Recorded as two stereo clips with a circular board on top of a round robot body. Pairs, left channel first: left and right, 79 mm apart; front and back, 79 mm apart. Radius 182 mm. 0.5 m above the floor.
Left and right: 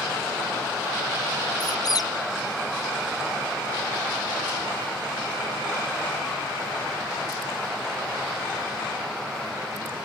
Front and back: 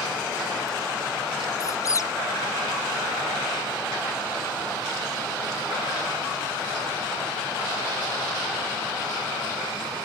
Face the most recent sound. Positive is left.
turn(degrees=50)